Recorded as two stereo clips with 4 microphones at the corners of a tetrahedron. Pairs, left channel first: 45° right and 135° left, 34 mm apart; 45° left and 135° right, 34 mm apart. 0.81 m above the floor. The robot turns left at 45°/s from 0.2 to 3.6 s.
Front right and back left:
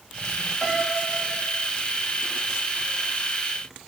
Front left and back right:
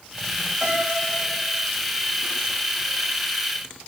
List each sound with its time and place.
0.6 s a piano: 145° right, 1.6 m; by 1.6 s 170° left, 1.6 m